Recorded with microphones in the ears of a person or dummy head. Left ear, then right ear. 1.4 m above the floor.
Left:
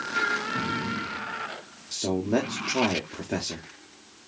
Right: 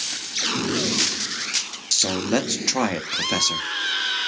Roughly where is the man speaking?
Right.